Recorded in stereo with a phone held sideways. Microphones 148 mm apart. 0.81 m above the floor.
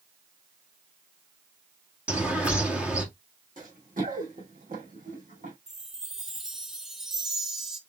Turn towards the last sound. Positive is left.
turn(degrees=-5)  # may be behind; listen again after turning